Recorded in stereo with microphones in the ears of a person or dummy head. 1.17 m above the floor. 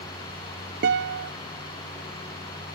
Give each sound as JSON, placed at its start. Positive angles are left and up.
{"t": 0.8, "sound": "a guitar", "side_deg": -50, "distance_m": 0.6}